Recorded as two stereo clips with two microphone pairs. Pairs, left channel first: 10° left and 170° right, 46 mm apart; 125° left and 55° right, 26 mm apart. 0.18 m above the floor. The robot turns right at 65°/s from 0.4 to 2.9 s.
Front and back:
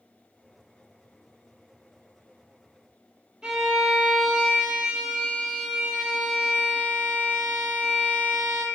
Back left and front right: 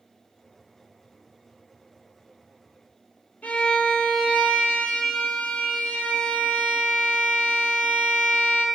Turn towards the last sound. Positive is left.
turn(degrees=115)